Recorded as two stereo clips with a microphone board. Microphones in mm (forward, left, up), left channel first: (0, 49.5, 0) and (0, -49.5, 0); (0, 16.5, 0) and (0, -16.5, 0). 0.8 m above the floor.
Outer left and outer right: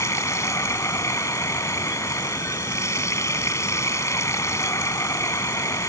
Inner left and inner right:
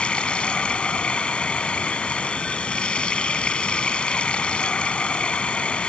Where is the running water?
30° left (ahead or behind).